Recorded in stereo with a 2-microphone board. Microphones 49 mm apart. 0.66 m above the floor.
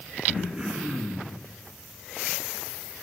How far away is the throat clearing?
About 2.5 m.